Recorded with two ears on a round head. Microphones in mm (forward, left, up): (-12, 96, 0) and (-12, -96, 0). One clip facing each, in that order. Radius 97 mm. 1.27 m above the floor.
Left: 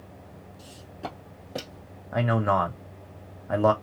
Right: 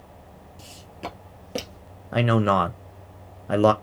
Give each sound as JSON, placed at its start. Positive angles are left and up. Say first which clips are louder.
{"t": 0.6, "sound": "footsteps", "louder": "right 1 dB", "side_deg": -30, "distance_m": 1.4}
{"t": 2.1, "sound": "a man speaking", "louder": "right 4 dB", "side_deg": -40, "distance_m": 0.6}